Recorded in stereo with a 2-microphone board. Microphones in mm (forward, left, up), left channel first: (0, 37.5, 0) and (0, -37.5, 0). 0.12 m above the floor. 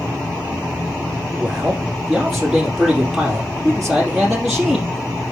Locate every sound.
1.4 s a man speaking: centre (ahead or behind), 3.5 m